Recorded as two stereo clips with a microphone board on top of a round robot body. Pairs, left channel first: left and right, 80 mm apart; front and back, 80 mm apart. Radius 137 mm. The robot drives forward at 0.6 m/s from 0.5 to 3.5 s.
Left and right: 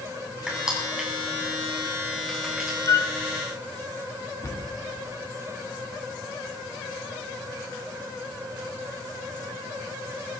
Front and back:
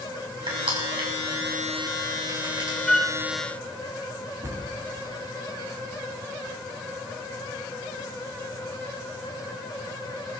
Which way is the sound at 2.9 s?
80° left.